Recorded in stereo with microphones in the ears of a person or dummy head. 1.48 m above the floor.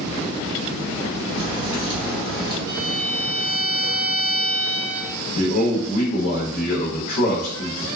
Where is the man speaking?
50° left (ahead or behind), 0.6 m.